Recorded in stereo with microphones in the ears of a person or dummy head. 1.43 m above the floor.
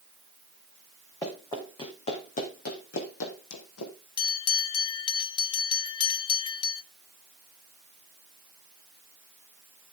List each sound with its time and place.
1.2 s running footsteps: 15° left (ahead or behind), 4 m; by 3.9 s 65° left (ahead or behind), 3.5 m
4.2 s a bell: 30° left (ahead or behind), 1.3 m